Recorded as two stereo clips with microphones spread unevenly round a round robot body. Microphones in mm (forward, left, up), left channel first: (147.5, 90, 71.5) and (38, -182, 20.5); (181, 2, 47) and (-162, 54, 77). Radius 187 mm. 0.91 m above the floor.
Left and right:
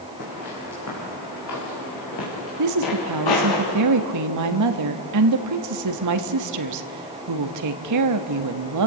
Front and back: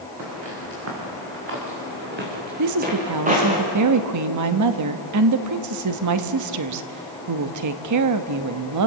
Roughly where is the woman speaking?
Behind right.